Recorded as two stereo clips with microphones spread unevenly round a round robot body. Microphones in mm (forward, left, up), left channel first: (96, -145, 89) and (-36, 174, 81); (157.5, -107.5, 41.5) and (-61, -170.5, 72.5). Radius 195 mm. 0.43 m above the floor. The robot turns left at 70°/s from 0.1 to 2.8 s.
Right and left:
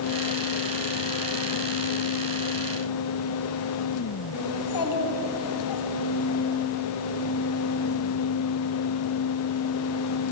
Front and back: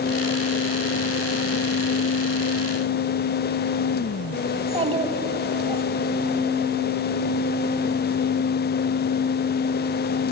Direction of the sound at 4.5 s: 100° right.